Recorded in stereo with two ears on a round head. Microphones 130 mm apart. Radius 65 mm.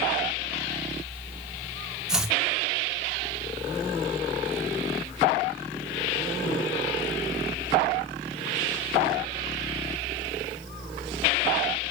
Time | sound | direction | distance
2.1 | chopping | 5° right (ahead or behind) | 1.0 m